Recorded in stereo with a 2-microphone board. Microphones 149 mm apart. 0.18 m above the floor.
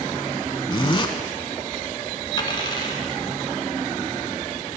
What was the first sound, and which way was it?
A zipper, 35° left (ahead or behind).